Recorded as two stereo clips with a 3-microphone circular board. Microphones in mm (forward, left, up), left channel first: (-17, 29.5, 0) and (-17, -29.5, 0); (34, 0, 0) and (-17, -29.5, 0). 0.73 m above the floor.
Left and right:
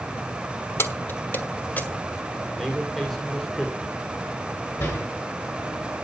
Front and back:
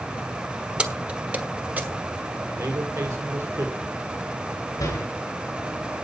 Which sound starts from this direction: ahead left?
A door slam, at 4.8 s.